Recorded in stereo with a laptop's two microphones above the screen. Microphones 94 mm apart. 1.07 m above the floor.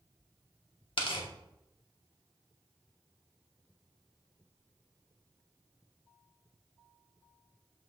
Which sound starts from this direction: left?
Tearing paper, at 1.0 s.